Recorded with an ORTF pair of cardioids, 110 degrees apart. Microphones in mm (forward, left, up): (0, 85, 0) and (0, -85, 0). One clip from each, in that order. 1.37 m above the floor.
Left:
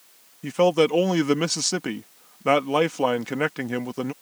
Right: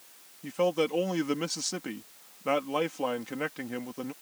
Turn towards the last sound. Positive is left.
turn(degrees=50)